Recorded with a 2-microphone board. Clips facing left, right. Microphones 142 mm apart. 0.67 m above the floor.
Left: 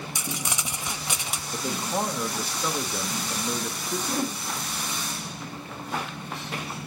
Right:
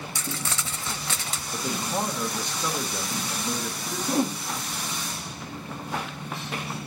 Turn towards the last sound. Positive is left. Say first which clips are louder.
# right 6 dB
turn(degrees=-25)  # may be behind; listen again after turning